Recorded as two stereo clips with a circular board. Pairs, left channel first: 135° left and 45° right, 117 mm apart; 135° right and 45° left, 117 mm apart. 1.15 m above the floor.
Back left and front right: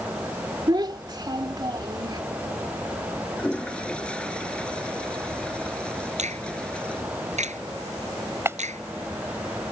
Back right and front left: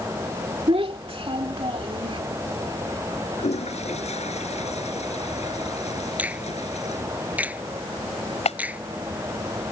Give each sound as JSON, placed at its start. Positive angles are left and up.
{"t": 0.7, "sound": "a child speaking", "azimuth_deg": 10}
{"t": 3.4, "sound": "a toilet flushing", "azimuth_deg": -145}
{"t": 6.2, "sound": "a finger snap", "azimuth_deg": -30}
{"t": 8.4, "sound": "a clap", "azimuth_deg": -115}